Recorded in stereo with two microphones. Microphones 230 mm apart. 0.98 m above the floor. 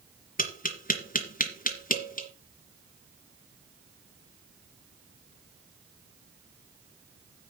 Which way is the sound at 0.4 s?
35° left (ahead or behind).